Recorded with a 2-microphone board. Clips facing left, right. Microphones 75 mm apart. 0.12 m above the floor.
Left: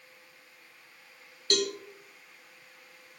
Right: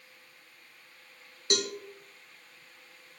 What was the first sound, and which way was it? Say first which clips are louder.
A cowbell: left 2 dB; 20° right (ahead or behind).